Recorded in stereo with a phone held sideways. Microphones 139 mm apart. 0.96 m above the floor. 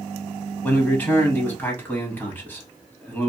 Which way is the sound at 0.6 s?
15° left (ahead or behind).